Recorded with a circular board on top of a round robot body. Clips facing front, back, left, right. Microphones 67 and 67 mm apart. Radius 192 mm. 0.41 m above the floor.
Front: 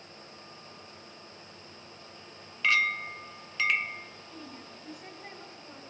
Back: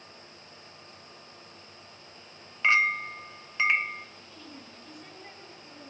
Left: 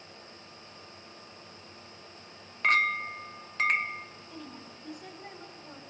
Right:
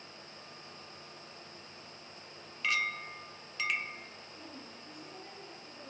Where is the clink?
120° left, 1.3 m.